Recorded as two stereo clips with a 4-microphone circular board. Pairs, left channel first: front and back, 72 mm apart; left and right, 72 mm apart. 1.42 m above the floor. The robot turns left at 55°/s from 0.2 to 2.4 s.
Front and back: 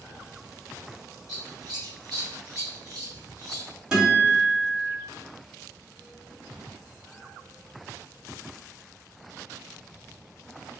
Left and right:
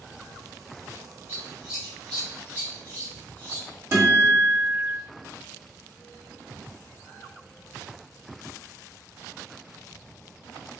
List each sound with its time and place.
1.3 s scissors: 155° right, 1.3 m; by 3.7 s 145° left, 1.3 m
3.9 s a guitar: 105° right, 1.4 m